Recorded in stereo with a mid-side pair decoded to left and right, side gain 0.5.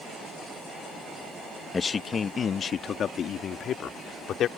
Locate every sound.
1.7 s a man speaking: 35° left; by 4.5 s 65° left